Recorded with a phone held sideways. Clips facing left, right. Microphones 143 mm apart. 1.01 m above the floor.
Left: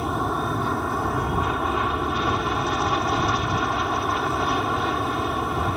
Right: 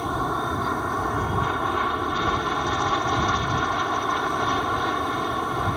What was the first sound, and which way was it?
An aircraft, centre (ahead or behind).